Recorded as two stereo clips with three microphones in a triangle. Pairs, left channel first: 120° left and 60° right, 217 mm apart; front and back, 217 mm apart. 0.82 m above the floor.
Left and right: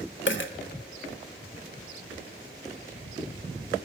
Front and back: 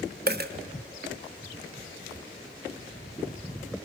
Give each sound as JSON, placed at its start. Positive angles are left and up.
{"t": 0.3, "sound": "a dropped coin", "azimuth_deg": 140, "distance_m": 0.8}